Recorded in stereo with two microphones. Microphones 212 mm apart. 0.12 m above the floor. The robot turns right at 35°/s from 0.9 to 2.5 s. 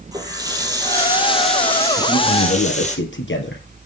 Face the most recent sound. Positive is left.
turn(degrees=65)  # may be behind; listen again after turning